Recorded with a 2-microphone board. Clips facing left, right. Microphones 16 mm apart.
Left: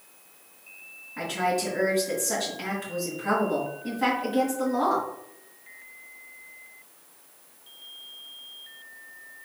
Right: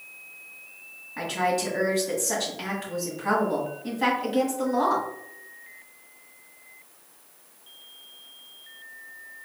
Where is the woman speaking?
25° right (ahead or behind), 1.7 m.